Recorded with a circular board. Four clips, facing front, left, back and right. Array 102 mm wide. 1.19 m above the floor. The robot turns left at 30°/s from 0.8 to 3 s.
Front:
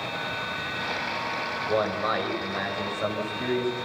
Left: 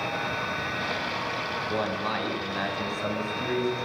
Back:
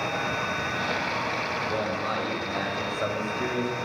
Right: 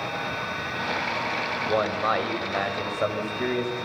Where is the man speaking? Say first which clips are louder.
Right 6 dB, front 7 dB; 60° right, 7 m; by 3.9 s 100° right, 7 m.